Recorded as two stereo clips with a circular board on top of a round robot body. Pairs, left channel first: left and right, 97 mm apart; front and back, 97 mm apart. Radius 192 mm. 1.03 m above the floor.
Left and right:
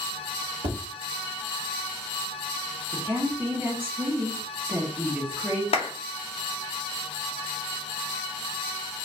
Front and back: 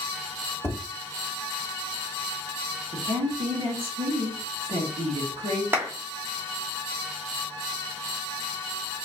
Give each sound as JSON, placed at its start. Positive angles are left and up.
{"t": 0.6, "sound": "tapping", "azimuth_deg": -90, "distance_m": 1.8}
{"t": 2.9, "sound": "a woman speaking", "azimuth_deg": -160, "distance_m": 1.3}
{"t": 5.7, "sound": "a clap", "azimuth_deg": 110, "distance_m": 1.1}